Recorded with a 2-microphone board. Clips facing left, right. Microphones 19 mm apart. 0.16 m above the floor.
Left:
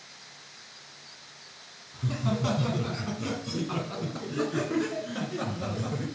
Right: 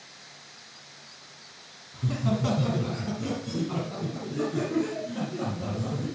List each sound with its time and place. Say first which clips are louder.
1.9 s laughter: right 2 dB; centre (ahead or behind), 1.7 m; by 6.1 s 60° left (ahead or behind), 3 m